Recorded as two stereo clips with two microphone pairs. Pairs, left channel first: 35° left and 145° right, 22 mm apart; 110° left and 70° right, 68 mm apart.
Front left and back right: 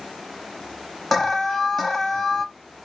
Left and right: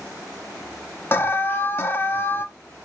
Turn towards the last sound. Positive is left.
turn(degrees=95)